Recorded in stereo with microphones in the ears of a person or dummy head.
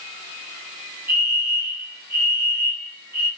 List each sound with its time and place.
1.1 s a fire alarm: 5° right (ahead or behind), 4.5 m